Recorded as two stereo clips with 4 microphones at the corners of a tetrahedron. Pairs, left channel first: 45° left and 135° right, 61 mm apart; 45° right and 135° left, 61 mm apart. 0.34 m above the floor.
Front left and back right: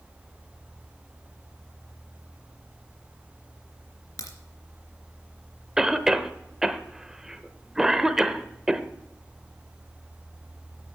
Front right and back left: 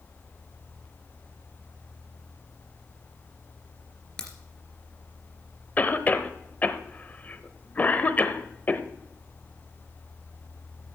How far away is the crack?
About 2.5 m.